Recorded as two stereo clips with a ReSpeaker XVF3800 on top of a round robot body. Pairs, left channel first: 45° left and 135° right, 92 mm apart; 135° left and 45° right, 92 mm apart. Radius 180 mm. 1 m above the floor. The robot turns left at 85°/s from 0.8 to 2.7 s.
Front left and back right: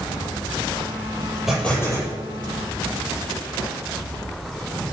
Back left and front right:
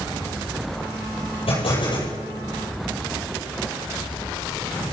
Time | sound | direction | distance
1.5 | an explosion | 140° left | 8.5 m